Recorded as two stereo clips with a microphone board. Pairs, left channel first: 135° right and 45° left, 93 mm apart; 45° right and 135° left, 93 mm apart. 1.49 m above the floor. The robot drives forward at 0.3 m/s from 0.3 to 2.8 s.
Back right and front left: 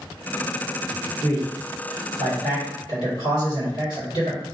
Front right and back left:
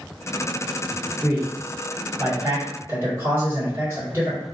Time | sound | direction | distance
1.2 | a man speaking | 155° right | 1.4 m